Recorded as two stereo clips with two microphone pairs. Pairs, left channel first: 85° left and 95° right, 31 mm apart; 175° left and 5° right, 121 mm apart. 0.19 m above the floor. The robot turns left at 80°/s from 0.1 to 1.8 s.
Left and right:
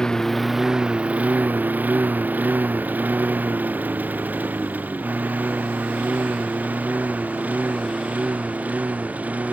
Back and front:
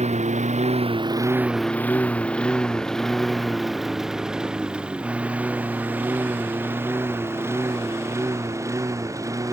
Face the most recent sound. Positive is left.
turn(degrees=-65)